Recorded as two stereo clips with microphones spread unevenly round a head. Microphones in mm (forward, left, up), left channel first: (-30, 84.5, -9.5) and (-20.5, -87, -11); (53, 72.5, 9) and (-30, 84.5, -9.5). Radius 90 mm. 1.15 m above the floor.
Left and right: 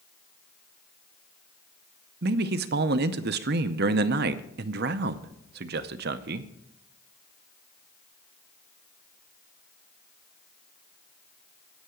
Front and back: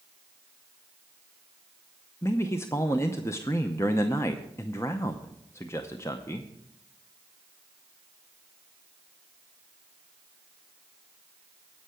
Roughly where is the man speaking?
Right.